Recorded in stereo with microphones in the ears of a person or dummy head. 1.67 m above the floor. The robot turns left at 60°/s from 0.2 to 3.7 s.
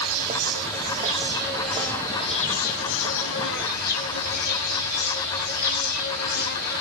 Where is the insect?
85° right, 5.5 m; by 6.8 s 65° left, 5.5 m.